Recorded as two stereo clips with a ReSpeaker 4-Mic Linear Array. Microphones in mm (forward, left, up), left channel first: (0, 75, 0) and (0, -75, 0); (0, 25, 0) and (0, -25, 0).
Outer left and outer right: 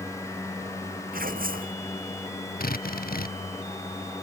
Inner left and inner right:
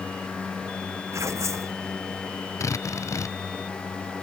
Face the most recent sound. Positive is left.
turn(degrees=80)